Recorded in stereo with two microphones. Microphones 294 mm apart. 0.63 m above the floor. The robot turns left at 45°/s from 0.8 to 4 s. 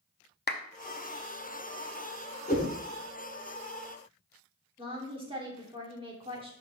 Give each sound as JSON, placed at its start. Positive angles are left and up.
{"t": 0.5, "sound": "a clap", "side_deg": 35, "distance_m": 0.5}
{"t": 2.5, "sound": "a whoosh", "side_deg": 35, "distance_m": 1.0}
{"t": 4.8, "sound": "a woman speaking", "side_deg": -20, "distance_m": 1.6}